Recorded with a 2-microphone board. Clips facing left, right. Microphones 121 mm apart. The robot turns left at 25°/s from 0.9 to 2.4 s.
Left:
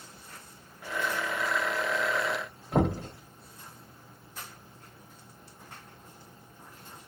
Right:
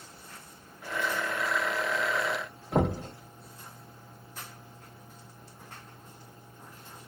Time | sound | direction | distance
2.7 | knocking | 5° right (ahead or behind) | 1.4 m